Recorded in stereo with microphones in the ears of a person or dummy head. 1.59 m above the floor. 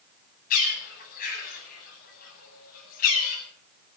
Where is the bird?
45° left (ahead or behind), 8.5 m.